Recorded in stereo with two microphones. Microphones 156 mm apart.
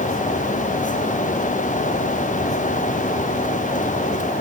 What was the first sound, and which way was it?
Only background noise.